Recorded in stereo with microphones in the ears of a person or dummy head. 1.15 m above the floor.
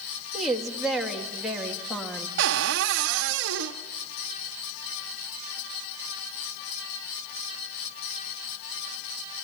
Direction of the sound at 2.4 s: 65° right (ahead or behind).